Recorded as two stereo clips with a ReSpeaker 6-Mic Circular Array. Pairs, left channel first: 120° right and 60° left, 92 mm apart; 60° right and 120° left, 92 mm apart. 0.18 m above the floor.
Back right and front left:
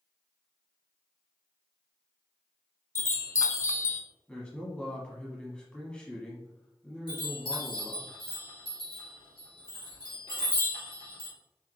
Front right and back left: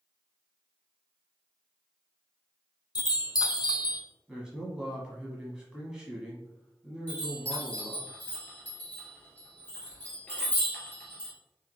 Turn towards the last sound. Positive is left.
turn(degrees=-130)